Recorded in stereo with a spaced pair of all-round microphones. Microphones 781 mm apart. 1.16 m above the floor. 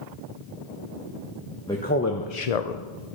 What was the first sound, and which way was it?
A man speaking, 5° left (ahead or behind).